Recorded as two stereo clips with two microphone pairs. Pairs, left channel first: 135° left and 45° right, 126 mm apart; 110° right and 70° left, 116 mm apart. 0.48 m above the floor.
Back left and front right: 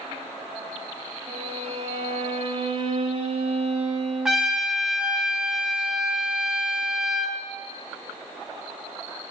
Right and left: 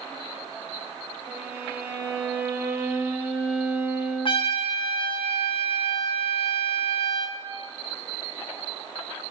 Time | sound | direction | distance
1.3 | a violin | 5° right | 1.9 m
4.2 | a trumpet | 130° right | 1.7 m